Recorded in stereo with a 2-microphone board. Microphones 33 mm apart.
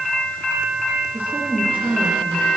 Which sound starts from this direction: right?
A woman speaking, at 1.1 s.